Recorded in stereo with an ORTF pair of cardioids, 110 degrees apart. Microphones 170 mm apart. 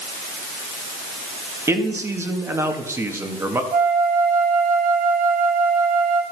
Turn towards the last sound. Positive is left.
turn(degrees=-55)